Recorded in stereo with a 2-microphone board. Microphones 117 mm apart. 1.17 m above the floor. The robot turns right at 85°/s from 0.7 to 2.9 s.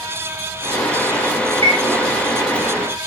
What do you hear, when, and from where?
1.6 s a chime: 35° left (ahead or behind), 1.8 m; by 1.8 s 50° left (ahead or behind), 1.8 m